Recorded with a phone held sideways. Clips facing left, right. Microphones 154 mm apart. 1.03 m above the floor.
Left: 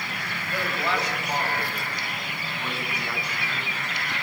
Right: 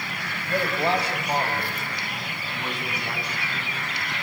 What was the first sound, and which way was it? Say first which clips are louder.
A man speaking: right 5 dB; 35° right (ahead or behind).